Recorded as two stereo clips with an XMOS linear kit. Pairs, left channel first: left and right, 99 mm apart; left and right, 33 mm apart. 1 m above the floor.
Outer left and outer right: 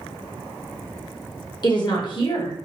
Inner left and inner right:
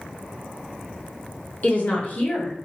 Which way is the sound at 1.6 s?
45° left (ahead or behind).